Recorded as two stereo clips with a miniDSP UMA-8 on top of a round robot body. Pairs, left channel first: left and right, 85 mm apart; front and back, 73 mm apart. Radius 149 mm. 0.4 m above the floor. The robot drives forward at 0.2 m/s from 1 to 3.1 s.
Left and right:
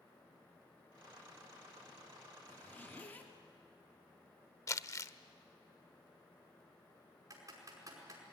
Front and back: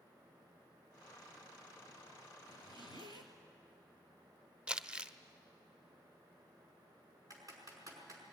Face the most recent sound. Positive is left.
turn(degrees=-140)